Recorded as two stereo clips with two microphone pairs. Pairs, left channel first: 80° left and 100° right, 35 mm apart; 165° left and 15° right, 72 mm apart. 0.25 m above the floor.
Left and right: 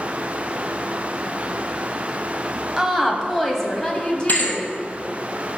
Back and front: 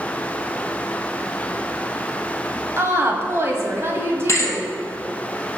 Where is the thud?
115° left, 1.3 m.